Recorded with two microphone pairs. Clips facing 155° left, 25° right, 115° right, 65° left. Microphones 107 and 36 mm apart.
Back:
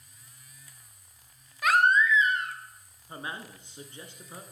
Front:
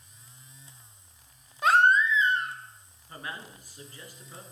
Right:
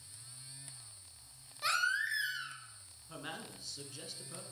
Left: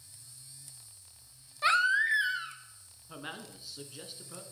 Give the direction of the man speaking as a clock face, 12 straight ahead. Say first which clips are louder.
Back 1 dB, left 2 dB; 8 o'clock.